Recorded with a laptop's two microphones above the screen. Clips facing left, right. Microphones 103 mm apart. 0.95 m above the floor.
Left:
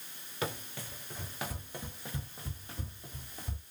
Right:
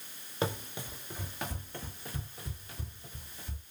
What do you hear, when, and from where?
0.4 s running footsteps: 30° right (ahead or behind), 1.0 m; by 3.6 s 50° left (ahead or behind), 1.6 m